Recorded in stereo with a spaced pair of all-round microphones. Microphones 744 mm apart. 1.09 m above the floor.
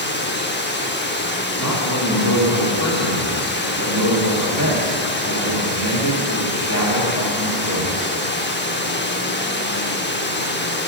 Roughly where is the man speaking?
Left.